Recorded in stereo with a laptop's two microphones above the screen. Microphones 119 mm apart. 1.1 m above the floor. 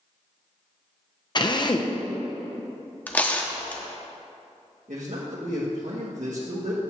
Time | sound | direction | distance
1.4 | a drill | 35° left (ahead or behind) | 0.6 m
3.1 | tearing paper | 15° left (ahead or behind) | 1.2 m
4.9 | a man speaking | 80° right | 1.3 m